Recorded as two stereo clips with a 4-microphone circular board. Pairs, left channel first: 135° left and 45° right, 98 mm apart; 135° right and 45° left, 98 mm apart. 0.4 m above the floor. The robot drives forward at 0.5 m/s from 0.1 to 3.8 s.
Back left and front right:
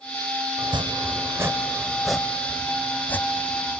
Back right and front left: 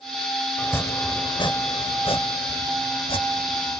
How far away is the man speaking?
I don't hear a man speaking.